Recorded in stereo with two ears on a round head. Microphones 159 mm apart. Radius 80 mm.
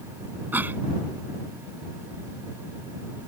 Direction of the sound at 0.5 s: 10° right (ahead or behind).